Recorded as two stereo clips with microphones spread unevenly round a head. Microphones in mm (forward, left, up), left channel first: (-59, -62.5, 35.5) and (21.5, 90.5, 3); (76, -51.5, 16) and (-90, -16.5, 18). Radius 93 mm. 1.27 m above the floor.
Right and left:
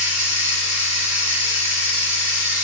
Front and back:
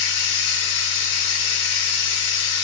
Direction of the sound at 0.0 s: 25° right.